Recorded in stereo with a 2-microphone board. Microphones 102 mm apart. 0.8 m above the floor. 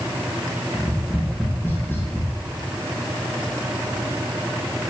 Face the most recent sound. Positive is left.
turn(degrees=25)  # may be behind; listen again after turning